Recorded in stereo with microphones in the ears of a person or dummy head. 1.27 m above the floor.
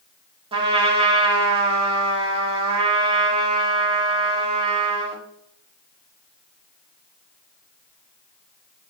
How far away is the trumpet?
About 1.1 m.